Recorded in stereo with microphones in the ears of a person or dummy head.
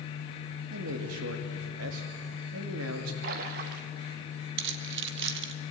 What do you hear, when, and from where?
0.7 s a man speaking: 85° right, 3 m
3.2 s a splash: 50° right (ahead or behind), 1.4 m
4.6 s keys jangling: 65° right (ahead or behind), 1.2 m